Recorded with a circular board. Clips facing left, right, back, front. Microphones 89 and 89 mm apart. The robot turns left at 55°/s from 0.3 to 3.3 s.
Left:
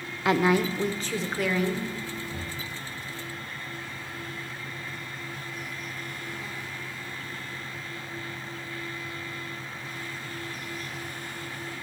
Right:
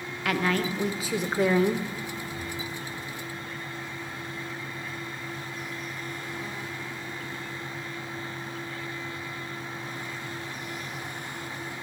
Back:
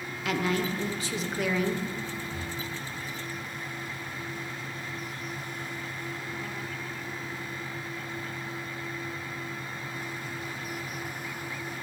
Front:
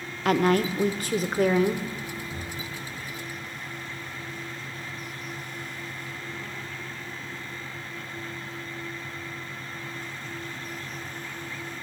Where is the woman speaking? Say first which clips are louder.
Left 4 dB, front 7 dB; 25° left, 0.8 m; by 1.9 s 60° right, 0.8 m.